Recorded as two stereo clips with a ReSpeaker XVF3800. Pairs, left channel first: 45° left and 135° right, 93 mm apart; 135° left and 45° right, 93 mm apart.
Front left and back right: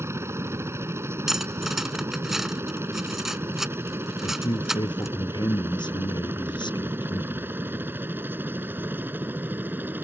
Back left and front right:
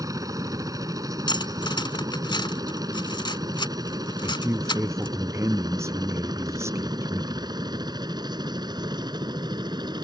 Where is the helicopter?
80° right; by 10.0 s 70° right.